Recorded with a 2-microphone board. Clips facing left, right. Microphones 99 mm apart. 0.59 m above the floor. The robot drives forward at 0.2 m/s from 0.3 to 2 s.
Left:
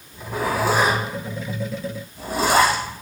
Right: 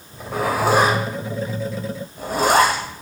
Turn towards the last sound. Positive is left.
turn(degrees=-55)  # may be behind; listen again after turning